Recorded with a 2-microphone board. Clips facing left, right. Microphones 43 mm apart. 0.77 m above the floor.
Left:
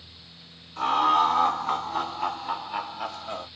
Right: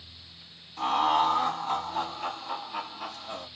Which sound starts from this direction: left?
Laughter, at 0.8 s.